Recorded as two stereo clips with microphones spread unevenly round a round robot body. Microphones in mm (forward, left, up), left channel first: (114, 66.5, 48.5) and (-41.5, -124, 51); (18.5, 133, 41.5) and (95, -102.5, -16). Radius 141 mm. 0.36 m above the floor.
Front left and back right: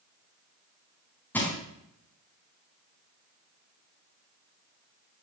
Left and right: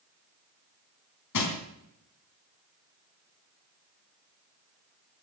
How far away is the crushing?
About 3.5 m.